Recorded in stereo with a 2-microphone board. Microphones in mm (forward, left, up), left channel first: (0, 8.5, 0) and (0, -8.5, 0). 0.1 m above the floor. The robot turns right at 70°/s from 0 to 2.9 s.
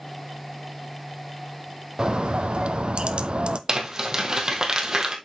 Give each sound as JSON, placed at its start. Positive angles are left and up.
{"t": 2.0, "sound": "a bird", "azimuth_deg": -135, "distance_m": 0.5}
{"t": 3.7, "sound": "crumpling", "side_deg": -40, "distance_m": 2.0}